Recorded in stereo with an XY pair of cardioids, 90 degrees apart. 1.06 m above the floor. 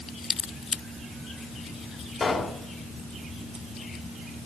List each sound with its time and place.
2.2 s a pop: 45° left, 3 m